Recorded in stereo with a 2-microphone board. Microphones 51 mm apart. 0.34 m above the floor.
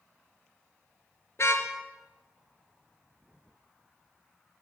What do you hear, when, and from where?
1.4 s a car horn: 60° left (ahead or behind), 3 m